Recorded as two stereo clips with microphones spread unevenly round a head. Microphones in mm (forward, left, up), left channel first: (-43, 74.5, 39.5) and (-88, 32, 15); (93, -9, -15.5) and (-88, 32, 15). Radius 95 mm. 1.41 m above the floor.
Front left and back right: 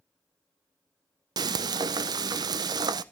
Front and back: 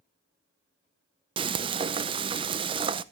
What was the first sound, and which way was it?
Frying, 140° right.